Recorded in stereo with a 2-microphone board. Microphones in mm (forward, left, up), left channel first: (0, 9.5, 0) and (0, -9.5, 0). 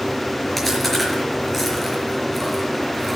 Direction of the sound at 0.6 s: 10° left (ahead or behind).